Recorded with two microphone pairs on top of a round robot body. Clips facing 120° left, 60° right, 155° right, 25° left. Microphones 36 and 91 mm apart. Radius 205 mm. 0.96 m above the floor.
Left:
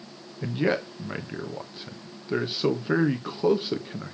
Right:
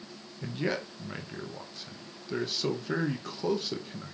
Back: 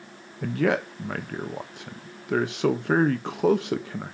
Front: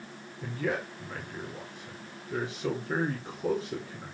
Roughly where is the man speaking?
Behind.